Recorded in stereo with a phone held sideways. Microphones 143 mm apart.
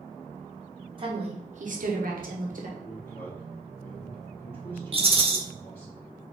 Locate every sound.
1.0 s a woman speaking: 35° right (ahead or behind), 1.4 m; by 2.7 s 60° right (ahead or behind), 1.2 m
2.8 s a man speaking: 20° left (ahead or behind), 1.4 m
4.9 s a rattle: 40° right (ahead or behind), 0.7 m